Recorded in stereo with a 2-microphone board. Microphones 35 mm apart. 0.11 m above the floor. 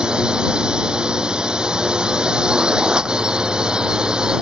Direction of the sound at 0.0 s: 25° right (ahead or behind).